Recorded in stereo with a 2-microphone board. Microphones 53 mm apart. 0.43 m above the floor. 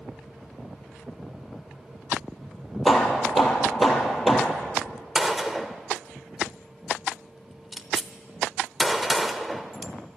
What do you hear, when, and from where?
2.9 s hammering: centre (ahead or behind), 2.5 m
5.2 s a gunshot: 5° right (ahead or behind), 0.9 m